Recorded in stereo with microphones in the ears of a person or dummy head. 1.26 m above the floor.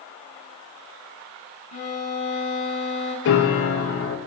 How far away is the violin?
About 5.5 m.